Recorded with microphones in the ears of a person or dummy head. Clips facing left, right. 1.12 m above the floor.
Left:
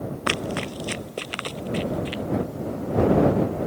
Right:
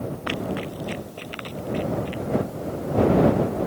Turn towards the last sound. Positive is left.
turn(degrees=65)  # may be behind; listen again after turning